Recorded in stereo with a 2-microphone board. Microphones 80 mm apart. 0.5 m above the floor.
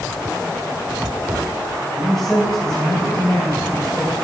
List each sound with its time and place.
2.0 s a man speaking: 5° left (ahead or behind), 3.5 m; by 4.2 s 25° left (ahead or behind), 3.5 m